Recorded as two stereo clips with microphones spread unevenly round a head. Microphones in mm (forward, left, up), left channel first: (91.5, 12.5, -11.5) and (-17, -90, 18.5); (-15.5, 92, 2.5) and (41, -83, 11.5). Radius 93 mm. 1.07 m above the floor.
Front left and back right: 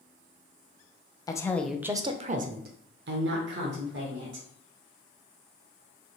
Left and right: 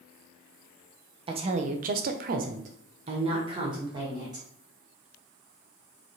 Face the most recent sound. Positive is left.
turn(degrees=-145)